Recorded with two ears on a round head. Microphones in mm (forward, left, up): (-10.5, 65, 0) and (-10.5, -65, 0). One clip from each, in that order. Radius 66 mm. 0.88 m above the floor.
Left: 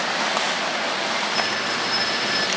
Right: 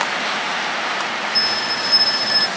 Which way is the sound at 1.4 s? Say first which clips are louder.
Right 4 dB; 75° right (ahead or behind).